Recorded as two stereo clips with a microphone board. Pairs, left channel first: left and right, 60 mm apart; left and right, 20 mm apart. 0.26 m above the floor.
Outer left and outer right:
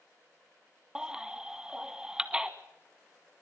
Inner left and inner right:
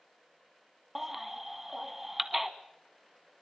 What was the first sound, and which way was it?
A baby crying, 10° right (ahead or behind).